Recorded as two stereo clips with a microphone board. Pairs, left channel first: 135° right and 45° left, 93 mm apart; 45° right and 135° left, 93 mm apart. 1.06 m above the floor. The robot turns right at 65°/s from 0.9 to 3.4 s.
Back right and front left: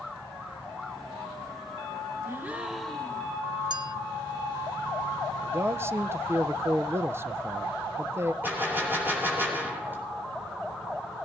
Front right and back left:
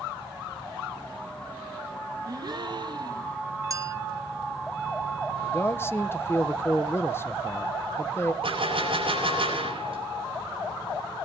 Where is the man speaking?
Straight ahead, 0.7 m.